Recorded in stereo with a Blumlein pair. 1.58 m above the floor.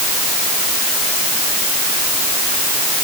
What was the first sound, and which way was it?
Only background noise.